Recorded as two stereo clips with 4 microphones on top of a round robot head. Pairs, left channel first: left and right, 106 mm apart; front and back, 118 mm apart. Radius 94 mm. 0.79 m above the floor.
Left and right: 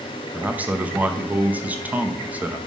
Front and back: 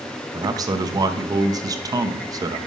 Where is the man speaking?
155° right, 0.7 m.